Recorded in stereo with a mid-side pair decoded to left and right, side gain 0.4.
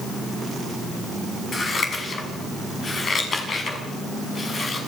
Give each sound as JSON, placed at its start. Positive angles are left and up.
{"t": 1.5, "sound": "scissors", "azimuth_deg": 50, "distance_m": 7.0}